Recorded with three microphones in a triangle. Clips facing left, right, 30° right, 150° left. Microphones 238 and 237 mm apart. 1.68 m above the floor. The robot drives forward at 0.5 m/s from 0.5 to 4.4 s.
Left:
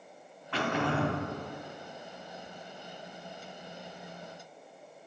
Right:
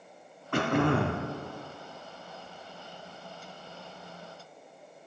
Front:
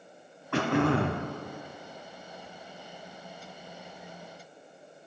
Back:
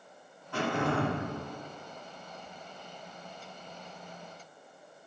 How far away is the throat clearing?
About 1.0 m.